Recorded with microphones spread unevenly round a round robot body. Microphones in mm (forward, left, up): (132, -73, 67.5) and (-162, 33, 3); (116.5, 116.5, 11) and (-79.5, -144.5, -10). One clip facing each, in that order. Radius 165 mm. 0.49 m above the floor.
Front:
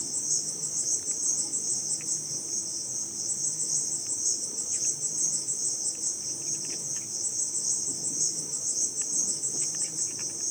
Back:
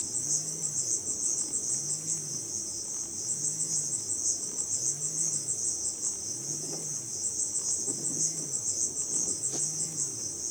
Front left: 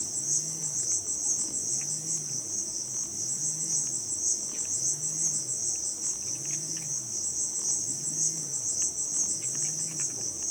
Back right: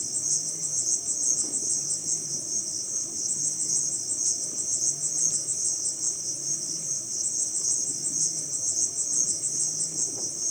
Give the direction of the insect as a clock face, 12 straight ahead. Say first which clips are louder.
Even, even; 4 o'clock.